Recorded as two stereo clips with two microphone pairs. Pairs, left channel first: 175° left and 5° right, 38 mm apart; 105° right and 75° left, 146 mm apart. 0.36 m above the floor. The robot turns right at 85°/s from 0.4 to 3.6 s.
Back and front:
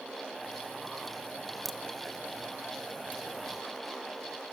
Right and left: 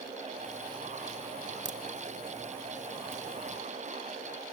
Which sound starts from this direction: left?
A crack, at 1.6 s.